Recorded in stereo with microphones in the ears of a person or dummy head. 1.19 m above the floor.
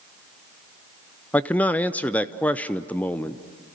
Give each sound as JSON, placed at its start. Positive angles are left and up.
{"t": 1.3, "sound": "a man speaking", "side_deg": 10, "distance_m": 0.6}